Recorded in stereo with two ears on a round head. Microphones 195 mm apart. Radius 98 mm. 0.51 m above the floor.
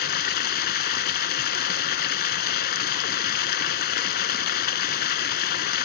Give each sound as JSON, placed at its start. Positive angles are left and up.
{"t": 0.0, "sound": "running water", "side_deg": 45, "distance_m": 0.7}